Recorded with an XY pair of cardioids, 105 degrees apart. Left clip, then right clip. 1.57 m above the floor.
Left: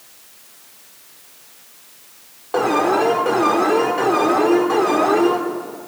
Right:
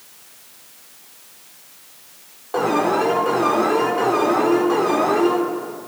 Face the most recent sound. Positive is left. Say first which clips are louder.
# left 2 dB
turn(degrees=25)